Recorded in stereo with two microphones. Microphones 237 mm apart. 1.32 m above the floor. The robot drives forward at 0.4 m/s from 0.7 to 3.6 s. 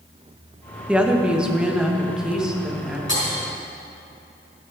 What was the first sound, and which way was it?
A woman speaking, 5° right (ahead or behind).